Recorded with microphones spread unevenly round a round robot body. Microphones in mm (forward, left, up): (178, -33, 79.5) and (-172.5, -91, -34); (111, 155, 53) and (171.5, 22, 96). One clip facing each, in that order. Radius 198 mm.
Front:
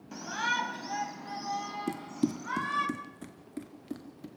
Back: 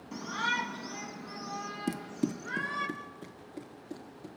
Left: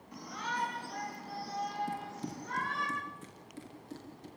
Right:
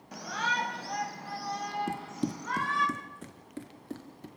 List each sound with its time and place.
0.1 s a shout: 80° right, 2.5 m; by 2.9 s 55° right, 4 m
1.9 s running footsteps: 90° right, 0.9 m; by 4.3 s 40° right, 4 m